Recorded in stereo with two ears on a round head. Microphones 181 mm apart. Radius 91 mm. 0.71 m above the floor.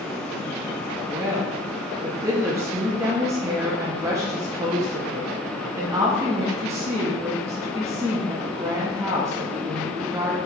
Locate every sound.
1.1 s a woman speaking: 15° right (ahead or behind), 0.7 m